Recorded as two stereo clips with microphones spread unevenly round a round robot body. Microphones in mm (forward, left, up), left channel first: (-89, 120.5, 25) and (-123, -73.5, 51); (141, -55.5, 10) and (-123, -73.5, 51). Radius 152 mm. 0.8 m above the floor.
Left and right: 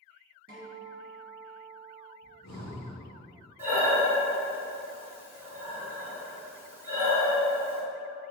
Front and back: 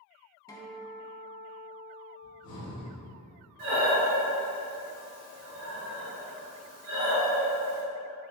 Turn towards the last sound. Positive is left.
turn(degrees=-175)